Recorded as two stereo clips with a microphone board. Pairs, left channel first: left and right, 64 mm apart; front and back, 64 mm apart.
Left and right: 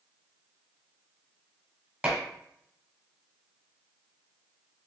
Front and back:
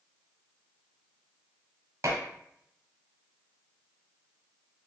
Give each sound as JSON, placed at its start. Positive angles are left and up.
{"t": 2.0, "sound": "dishes clattering", "azimuth_deg": -160, "distance_m": 1.1}